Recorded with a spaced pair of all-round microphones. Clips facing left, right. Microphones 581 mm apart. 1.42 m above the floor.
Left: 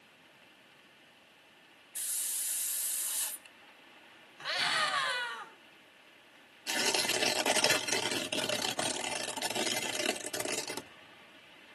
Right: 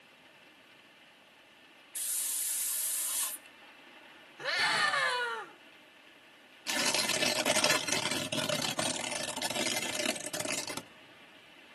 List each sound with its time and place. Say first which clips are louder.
1.9 s a hiss: right 2 dB; 30° right (ahead or behind), 1.0 m
4.4 s a scream: right 3 dB; 85° right, 2.5 m
6.7 s tearing paper: left 1 dB; 30° right (ahead or behind), 1.1 m